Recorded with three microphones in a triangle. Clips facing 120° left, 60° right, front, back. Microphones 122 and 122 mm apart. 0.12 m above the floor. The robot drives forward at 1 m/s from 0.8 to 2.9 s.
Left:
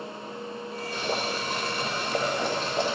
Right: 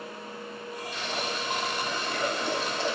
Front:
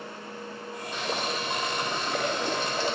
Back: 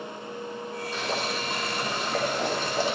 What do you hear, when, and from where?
0.9 s boiling: 85° left, 5 m; by 3.0 s 110° left, 5 m